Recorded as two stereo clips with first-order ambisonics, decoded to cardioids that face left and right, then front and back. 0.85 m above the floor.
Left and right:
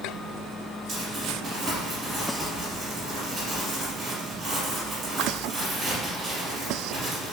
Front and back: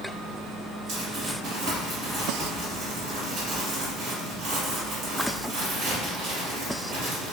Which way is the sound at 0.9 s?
160° right.